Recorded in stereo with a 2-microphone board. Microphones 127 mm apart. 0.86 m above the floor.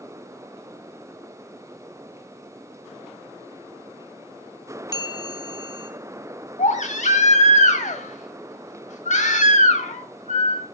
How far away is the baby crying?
About 1.8 m.